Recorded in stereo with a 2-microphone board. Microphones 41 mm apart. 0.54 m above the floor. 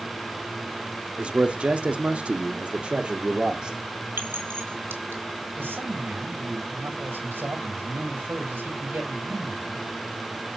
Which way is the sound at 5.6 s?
65° right (ahead or behind).